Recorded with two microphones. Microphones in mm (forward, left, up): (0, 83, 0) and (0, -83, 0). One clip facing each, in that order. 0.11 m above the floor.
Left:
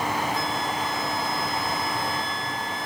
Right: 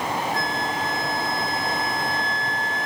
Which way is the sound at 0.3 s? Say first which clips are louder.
Right 1 dB; 60° right (ahead or behind).